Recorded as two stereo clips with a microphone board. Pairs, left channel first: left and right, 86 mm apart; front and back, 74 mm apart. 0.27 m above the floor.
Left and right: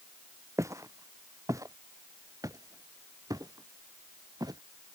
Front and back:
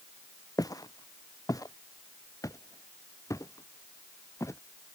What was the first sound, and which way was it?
Footsteps, 40° right.